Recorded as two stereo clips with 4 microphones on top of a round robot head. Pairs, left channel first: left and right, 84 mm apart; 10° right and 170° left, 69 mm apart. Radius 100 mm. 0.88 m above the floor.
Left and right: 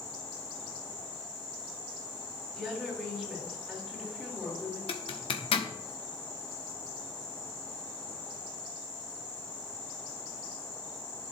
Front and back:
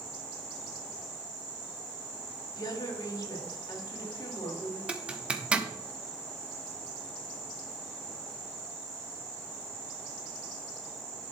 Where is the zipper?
95° left, 1.4 m.